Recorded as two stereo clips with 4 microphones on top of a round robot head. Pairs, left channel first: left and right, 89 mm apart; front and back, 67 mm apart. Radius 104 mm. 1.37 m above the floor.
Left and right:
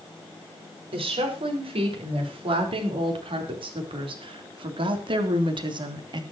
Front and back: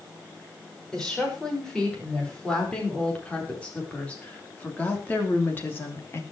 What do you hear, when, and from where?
0.9 s a woman speaking: 80° right, 6 m; by 6.2 s 55° right, 3 m